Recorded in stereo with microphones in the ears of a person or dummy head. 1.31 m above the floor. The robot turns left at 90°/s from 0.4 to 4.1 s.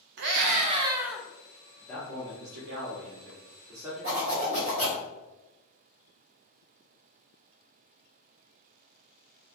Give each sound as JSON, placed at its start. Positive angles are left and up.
{"t": 0.2, "sound": "a scream", "azimuth_deg": -120, "distance_m": 0.6}
{"t": 1.8, "sound": "a man speaking", "azimuth_deg": 15, "distance_m": 0.8}
{"t": 4.0, "sound": "a zipper", "side_deg": -35, "distance_m": 1.2}